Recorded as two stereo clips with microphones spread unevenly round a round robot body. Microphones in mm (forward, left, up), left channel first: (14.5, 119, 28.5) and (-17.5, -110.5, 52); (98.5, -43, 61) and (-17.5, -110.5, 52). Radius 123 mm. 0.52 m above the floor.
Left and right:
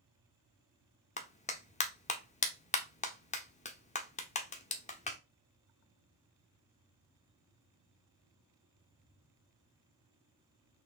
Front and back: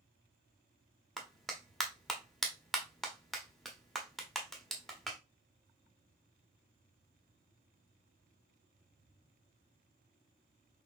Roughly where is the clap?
Behind left.